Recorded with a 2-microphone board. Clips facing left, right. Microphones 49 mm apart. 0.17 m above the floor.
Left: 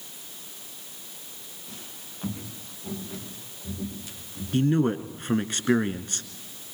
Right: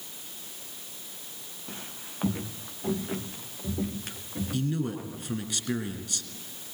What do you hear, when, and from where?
1.7 s footsteps: 35° right (ahead or behind), 3.5 m; by 5.5 s 65° right (ahead or behind), 5.5 m
4.5 s a man speaking: 45° left (ahead or behind), 1.8 m